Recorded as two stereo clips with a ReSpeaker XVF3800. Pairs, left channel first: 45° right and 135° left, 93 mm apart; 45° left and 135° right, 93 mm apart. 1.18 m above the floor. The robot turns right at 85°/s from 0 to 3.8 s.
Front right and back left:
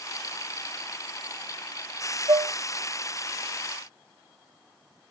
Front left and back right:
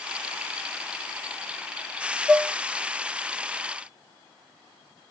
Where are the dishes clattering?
135° left, 1.1 m; by 2.5 s 155° left, 1.1 m.